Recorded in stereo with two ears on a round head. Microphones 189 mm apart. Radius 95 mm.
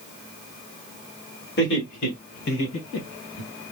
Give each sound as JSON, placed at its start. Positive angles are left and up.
{"t": 1.6, "sound": "laughter", "side_deg": 55, "distance_m": 1.8}